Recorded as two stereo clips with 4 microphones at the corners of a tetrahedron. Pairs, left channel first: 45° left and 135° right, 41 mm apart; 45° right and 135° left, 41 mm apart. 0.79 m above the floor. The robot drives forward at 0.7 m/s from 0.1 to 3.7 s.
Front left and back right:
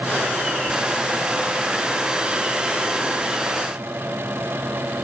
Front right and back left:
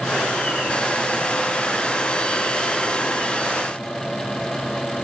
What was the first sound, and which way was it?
Only background noise.